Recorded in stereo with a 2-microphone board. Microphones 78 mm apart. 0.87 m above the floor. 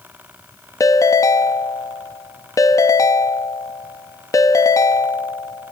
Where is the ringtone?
45° left (ahead or behind), 0.6 m.